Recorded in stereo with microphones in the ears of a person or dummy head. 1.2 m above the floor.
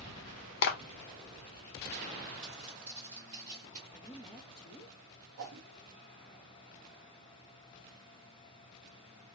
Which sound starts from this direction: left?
A clap, at 0.6 s.